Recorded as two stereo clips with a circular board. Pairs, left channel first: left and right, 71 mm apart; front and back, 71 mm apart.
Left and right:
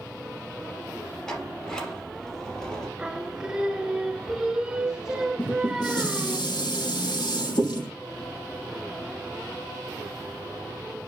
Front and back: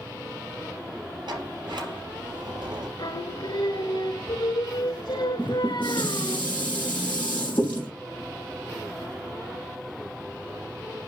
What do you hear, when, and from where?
1.3 s a sliding door: 170° left, 3 m
3.0 s singing: 5° right, 0.7 m
5.4 s dishes clattering: 70° left, 5 m